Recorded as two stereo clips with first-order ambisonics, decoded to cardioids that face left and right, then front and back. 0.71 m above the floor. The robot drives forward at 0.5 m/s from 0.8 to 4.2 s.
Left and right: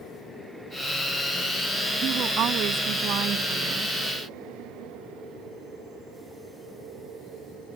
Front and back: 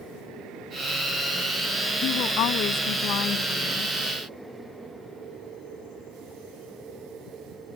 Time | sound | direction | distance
2.0 | a woman speaking | 40° right | ?